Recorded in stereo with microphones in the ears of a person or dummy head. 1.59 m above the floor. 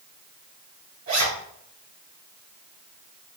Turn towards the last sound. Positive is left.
turn(degrees=-35)  # may be behind; listen again after turning